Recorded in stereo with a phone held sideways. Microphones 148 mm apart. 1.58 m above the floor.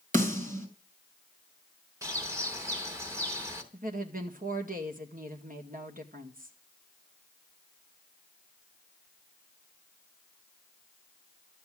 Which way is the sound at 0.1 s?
60° right (ahead or behind).